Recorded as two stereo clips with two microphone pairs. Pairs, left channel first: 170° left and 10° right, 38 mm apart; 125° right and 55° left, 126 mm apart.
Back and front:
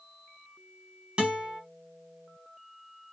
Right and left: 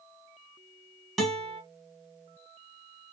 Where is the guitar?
35° right, 1.4 m.